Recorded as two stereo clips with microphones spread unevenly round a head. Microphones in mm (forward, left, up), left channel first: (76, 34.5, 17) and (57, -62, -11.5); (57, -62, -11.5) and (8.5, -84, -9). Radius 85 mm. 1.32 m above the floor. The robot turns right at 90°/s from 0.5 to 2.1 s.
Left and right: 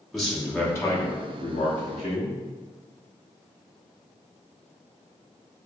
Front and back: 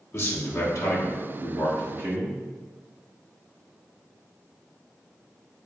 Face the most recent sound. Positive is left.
turn(degrees=135)